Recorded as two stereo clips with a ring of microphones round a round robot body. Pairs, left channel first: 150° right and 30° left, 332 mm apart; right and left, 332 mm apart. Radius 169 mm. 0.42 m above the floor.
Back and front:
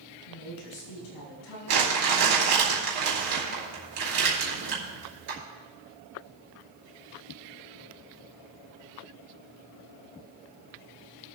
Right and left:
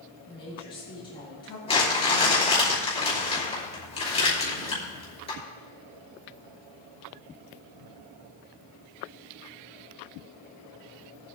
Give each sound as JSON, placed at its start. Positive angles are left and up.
{"t": 0.3, "sound": "a woman speaking", "azimuth_deg": -165, "distance_m": 5.5}
{"t": 1.7, "sound": "crumpling", "azimuth_deg": -15, "distance_m": 4.0}